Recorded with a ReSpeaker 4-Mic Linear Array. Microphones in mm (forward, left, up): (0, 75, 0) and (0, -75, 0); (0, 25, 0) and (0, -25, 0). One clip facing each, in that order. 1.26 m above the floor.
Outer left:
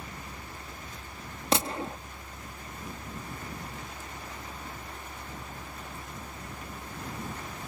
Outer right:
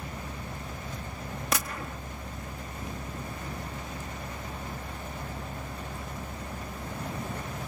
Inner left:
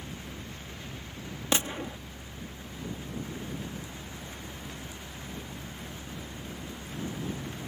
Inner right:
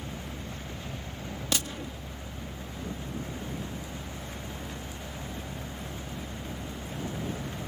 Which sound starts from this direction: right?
A vehicle, at 0.0 s.